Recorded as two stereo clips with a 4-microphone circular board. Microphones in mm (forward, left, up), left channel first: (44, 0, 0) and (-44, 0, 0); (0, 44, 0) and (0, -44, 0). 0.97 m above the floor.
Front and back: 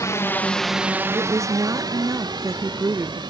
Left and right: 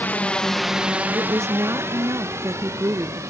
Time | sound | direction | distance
0.0 | a drone | 30° left | ?
1.1 | a woman speaking | 135° right | ?